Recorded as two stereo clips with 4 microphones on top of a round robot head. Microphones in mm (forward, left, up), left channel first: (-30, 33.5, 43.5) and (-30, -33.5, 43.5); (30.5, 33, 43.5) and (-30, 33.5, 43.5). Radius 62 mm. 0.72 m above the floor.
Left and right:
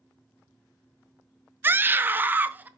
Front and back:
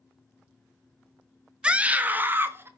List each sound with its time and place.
1.6 s a scream: 120° right, 1.1 m; by 2.7 s 145° right, 1.4 m